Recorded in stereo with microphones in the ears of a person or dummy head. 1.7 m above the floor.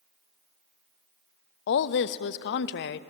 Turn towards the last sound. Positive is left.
turn(degrees=55)  # may be behind; listen again after turning